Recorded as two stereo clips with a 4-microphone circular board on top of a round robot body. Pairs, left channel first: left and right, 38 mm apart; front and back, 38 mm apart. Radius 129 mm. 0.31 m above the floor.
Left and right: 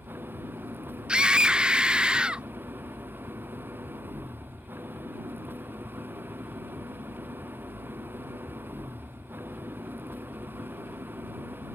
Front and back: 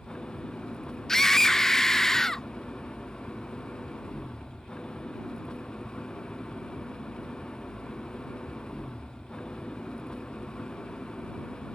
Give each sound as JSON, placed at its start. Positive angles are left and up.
{"t": 0.0, "sound": "an engine running", "azimuth_deg": -70}
{"t": 1.1, "sound": "a scream", "azimuth_deg": -65}